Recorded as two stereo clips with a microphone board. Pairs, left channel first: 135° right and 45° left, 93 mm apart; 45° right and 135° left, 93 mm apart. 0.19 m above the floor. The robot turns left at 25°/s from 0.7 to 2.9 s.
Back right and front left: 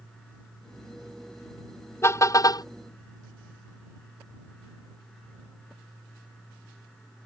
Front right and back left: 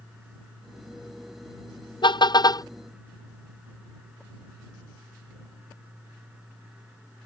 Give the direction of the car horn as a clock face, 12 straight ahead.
2 o'clock.